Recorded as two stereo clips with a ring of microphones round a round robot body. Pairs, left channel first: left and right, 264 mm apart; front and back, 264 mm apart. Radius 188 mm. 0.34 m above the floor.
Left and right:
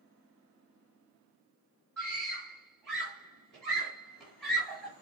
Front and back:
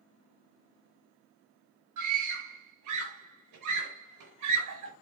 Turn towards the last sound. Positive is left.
turn(degrees=180)